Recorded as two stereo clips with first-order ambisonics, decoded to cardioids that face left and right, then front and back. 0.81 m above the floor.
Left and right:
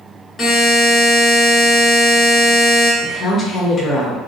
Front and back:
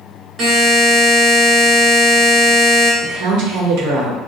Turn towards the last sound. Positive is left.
turn(degrees=170)